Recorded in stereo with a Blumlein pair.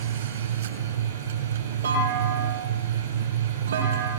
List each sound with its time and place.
0.0 s a machine running: 65° right, 6 m
1.8 s a clunk: 65° right, 7 m